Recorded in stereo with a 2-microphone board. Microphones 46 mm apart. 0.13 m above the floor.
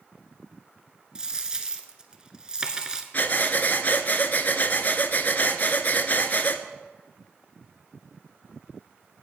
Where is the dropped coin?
15° right (ahead or behind), 0.8 m.